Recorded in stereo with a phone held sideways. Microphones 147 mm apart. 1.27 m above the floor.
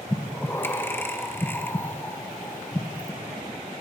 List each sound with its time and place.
0.1 s breathing: 15° left (ahead or behind), 1.7 m